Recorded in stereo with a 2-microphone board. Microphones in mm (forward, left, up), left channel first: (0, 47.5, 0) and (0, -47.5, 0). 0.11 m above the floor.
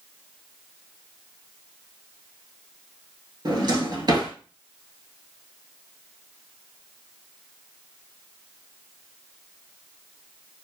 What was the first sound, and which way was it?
A drawer, 50° right (ahead or behind).